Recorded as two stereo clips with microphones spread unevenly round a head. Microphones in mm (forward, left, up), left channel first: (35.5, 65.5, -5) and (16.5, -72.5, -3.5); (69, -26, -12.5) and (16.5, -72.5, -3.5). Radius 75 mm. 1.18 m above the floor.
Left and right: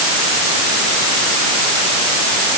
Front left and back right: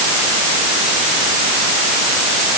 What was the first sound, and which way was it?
Only background noise.